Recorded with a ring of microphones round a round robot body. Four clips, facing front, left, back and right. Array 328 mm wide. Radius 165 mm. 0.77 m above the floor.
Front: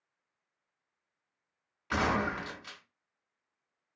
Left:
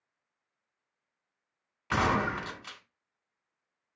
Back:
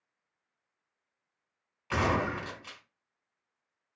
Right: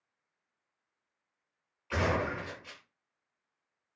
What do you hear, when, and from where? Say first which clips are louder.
1.9 s a gunshot: left 3 dB, back 1 dB; 85° left, 3 m